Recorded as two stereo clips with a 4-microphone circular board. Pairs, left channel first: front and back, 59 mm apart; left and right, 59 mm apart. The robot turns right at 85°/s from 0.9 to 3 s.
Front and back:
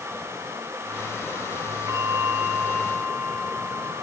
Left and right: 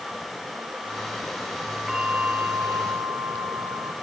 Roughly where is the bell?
Behind.